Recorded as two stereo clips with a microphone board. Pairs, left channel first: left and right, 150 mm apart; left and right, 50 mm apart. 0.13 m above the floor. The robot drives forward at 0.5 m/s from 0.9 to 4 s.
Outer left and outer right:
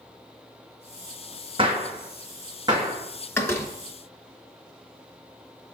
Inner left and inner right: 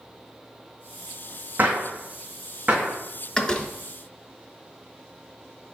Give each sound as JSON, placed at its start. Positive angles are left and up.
{"t": 1.6, "sound": "a gunshot", "side_deg": -35, "distance_m": 1.7}
{"t": 3.4, "sound": "a door slam", "side_deg": 15, "distance_m": 1.0}